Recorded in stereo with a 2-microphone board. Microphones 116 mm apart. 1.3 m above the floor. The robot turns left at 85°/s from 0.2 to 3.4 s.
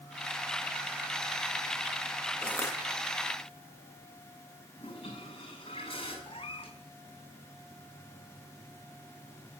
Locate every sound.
2.4 s crushing: 175° left, 1.9 m; by 2.8 s 145° left, 1.9 m
4.8 s a toilet flushing: 45° left (ahead or behind), 5.5 m
6.3 s a cat meowing: 50° left (ahead or behind), 1.7 m